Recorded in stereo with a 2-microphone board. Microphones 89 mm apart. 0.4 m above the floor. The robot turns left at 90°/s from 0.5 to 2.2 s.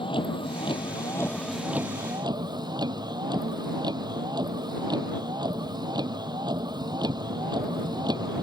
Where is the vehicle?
95° left; by 8.4 s 55° right.